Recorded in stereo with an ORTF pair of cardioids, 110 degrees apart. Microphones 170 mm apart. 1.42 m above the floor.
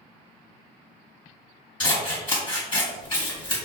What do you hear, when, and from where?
1.8 s scissors: 25° left, 1.5 m